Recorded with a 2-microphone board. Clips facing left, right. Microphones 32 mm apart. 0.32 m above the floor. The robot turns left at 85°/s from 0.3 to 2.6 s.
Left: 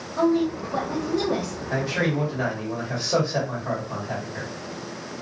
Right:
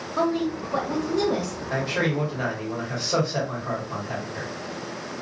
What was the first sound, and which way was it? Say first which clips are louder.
A woman speaking: left 3 dB; 100° right.